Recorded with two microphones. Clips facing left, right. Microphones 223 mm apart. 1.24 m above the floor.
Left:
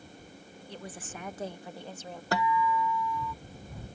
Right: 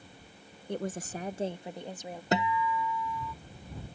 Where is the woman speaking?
55° right (ahead or behind); by 2.2 s 15° right (ahead or behind).